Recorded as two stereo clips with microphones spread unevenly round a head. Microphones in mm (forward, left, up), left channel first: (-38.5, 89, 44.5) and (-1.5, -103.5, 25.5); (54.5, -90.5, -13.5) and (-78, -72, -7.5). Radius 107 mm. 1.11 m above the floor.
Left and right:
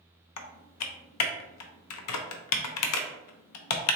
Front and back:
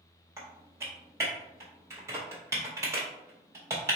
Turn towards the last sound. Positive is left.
turn(degrees=95)